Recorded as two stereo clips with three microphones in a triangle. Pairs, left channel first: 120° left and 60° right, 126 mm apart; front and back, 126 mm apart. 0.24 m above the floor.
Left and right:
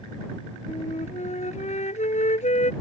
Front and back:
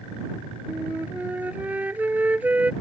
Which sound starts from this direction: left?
A flute, at 0.7 s.